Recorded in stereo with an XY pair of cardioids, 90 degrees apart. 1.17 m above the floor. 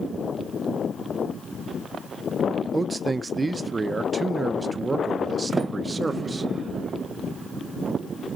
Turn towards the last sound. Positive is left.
turn(degrees=-35)